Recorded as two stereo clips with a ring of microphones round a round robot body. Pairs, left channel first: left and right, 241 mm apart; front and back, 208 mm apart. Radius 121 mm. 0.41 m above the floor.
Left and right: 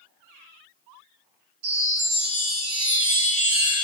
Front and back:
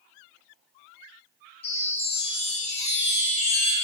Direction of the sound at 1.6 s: 65° right.